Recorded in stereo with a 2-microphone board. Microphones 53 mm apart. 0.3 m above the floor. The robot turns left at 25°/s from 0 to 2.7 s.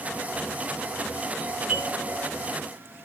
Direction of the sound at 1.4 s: 15° right (ahead or behind).